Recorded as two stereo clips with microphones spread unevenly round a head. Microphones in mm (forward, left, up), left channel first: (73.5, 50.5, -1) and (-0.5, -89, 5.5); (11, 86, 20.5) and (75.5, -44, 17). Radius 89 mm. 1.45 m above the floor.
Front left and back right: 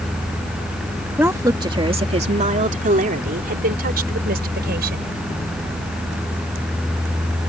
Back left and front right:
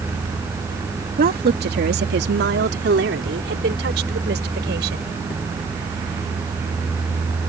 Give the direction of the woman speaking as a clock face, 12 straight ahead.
1 o'clock.